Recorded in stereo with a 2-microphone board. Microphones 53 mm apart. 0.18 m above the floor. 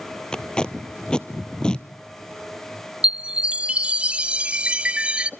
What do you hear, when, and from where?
0.3 s tape being pulled: 15° left (ahead or behind), 1.1 m
3.0 s a chime: 20° right (ahead or behind), 0.6 m